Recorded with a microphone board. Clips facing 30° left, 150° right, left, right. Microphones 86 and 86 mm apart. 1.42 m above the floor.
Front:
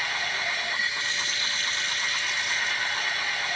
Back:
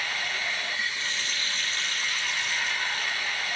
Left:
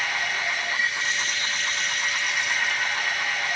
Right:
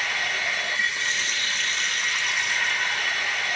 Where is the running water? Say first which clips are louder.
Front 2 dB, left 1 dB; 10° left, 0.9 m.